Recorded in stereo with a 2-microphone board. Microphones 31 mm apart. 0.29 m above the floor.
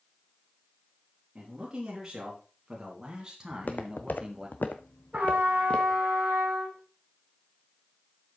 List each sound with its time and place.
1.4 s a man speaking: 20° right (ahead or behind), 4.5 m
3.5 s footsteps: 55° left (ahead or behind), 1.1 m; by 6.0 s 35° left (ahead or behind), 1.5 m
5.1 s a trumpet: 70° right (ahead or behind), 3.5 m